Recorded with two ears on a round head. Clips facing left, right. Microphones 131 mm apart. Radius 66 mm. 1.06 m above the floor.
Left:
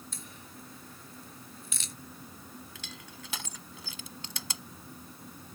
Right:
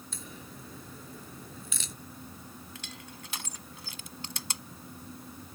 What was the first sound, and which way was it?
A crack, 70° right (ahead or behind).